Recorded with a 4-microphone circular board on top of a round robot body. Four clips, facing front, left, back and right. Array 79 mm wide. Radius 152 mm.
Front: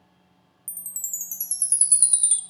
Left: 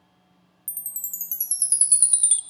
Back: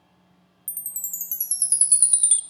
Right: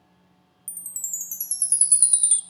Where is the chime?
135° left, 0.6 m.